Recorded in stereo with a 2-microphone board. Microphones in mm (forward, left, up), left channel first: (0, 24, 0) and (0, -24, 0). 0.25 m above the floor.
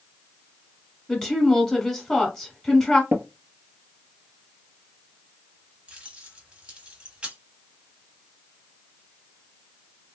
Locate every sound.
1.1 s a woman speaking: 10° left (ahead or behind), 1.2 m
3.1 s tapping: 55° right (ahead or behind), 0.9 m
5.9 s keys jangling: 25° right (ahead or behind), 1.1 m